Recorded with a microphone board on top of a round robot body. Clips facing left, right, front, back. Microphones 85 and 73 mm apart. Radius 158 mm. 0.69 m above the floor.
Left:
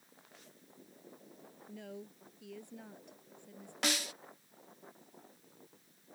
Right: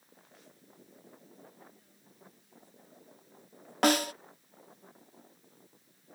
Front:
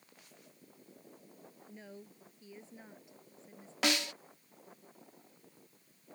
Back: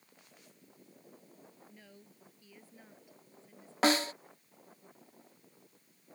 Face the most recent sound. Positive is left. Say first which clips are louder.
# right 12 dB, back 5 dB
turn(degrees=-130)